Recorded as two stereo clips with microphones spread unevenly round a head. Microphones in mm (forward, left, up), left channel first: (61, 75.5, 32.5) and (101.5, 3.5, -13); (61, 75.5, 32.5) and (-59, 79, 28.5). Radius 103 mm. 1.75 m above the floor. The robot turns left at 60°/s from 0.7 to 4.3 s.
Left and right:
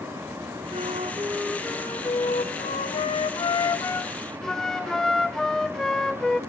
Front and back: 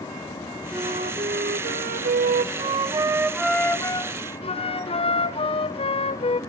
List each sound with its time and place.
0.7 s a flute: 105° right, 0.8 m; by 6.4 s 40° left, 0.8 m